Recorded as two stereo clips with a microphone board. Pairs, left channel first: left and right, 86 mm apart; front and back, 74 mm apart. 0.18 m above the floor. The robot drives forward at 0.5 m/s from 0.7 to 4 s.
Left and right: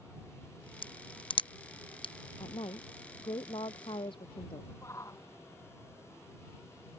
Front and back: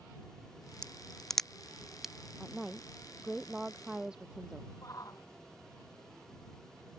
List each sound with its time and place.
0.8 s a crack: 80° left; by 2.1 s 95° left
2.4 s a woman speaking: 95° left; by 4.7 s 100° left
4.8 s a shout: 35° left